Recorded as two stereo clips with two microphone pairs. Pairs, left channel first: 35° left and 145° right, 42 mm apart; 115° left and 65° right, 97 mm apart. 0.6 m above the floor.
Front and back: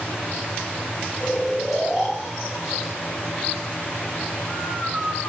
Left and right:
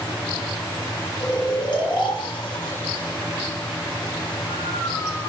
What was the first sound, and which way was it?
Snoring, 125° left.